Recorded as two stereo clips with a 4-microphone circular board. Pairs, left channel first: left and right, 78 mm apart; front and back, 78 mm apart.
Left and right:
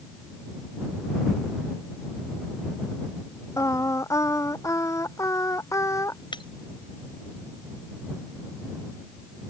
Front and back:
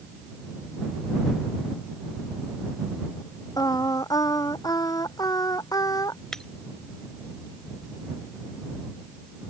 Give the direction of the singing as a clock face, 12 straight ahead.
11 o'clock.